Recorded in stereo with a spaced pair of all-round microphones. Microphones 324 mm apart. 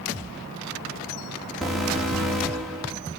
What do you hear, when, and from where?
1.6 s an alarm: centre (ahead or behind), 3 m